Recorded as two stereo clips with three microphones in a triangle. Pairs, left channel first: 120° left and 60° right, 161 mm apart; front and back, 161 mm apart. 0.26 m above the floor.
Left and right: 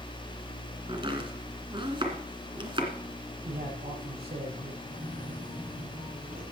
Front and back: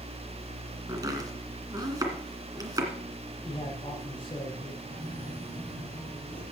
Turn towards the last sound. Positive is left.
turn(degrees=-40)